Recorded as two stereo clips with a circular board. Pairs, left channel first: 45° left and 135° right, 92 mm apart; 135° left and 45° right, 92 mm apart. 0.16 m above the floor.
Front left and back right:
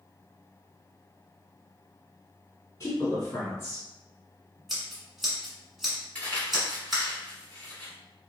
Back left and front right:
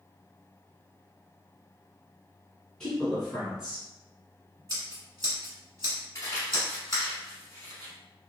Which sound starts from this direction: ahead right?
Scissors, at 4.7 s.